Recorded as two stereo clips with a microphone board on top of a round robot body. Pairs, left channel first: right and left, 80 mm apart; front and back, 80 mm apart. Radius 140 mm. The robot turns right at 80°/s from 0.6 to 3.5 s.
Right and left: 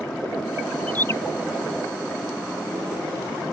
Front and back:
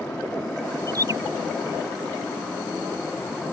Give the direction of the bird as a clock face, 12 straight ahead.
5 o'clock.